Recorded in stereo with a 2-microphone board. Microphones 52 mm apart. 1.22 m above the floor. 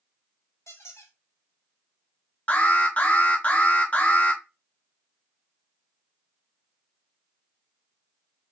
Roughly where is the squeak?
Left.